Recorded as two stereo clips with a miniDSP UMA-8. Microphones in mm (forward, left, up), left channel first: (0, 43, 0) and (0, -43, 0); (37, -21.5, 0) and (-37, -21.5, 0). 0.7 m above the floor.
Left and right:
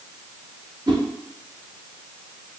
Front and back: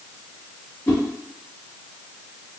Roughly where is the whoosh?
Ahead right.